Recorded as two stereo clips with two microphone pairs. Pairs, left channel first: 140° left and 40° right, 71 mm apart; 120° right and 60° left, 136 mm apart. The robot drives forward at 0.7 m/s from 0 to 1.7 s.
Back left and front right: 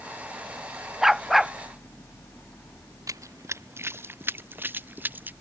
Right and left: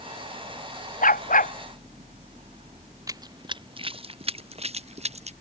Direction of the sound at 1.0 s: 125° right.